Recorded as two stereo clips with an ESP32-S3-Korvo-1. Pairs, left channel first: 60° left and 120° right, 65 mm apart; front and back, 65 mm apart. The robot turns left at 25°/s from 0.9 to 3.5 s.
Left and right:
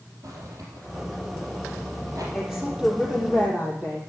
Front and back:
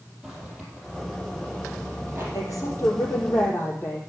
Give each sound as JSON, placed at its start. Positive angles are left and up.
{"t": 0.2, "sound": "a zipper", "azimuth_deg": -95, "distance_m": 4.5}
{"t": 2.3, "sound": "a woman speaking", "azimuth_deg": -30, "distance_m": 3.5}